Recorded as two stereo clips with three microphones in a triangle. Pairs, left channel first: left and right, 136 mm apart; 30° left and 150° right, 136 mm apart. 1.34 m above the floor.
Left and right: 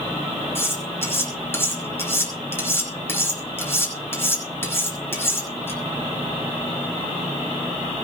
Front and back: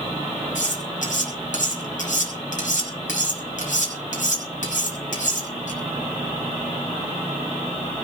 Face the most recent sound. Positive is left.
turn(degrees=20)